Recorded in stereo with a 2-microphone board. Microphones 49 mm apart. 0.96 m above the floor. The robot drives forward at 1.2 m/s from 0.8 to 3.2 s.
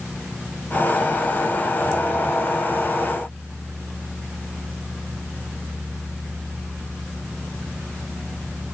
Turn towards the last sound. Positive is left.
No sound to turn to.